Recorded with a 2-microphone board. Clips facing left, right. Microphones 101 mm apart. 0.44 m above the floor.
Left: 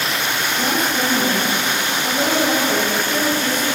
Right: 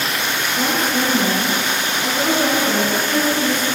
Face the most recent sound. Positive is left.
turn(degrees=-65)  # may be behind; listen again after turning